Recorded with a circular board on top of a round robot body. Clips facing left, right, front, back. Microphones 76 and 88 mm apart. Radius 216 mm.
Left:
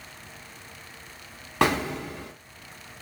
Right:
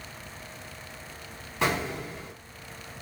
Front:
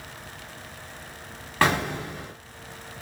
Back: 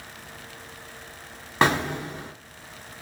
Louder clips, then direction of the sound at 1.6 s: Left 4 dB, back 1 dB; 110° left.